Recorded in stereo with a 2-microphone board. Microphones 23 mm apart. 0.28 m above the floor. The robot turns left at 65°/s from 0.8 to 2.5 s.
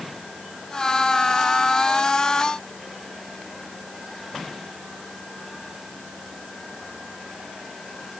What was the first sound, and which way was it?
Only background noise.